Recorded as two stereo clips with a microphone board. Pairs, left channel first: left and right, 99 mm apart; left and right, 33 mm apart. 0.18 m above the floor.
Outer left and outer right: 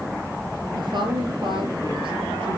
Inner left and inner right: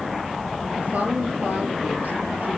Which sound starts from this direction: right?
A woman speaking, at 0.7 s.